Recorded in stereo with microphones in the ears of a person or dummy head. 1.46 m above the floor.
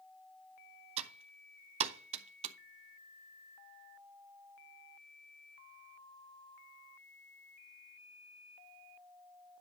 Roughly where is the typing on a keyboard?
Right.